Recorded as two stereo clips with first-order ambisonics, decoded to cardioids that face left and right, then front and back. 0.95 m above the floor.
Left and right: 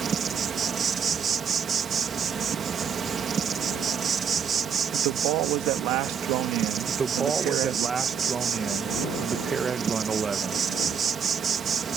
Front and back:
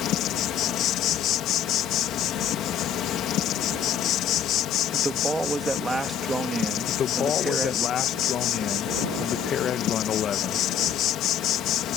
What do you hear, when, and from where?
0.0 s an insect: 30° right
4.9 s a man speaking: 100° right
6.9 s a man speaking: 30° right